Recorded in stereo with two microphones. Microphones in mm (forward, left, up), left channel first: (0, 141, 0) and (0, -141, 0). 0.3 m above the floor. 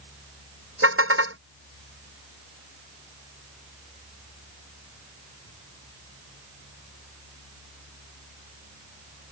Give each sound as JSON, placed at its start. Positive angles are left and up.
{"t": 0.8, "sound": "a car horn", "side_deg": -45}